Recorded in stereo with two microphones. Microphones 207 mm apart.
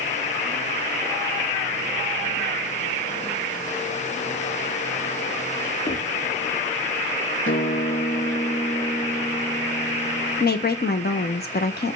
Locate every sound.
5.8 s knocking: 40° left (ahead or behind), 4.5 m
7.5 s a guitar: 70° left (ahead or behind), 1.6 m
10.4 s a woman speaking: 50° left (ahead or behind), 1.1 m